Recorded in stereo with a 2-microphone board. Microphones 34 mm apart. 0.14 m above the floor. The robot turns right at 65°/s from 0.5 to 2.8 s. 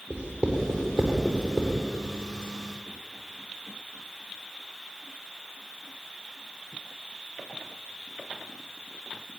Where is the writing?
25° right (ahead or behind), 8.5 m; by 1.8 s 75° right (ahead or behind), 8.5 m.